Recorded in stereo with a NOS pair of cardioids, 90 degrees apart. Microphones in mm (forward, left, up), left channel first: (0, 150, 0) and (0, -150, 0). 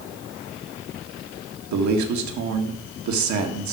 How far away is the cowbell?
No cowbell in this recording.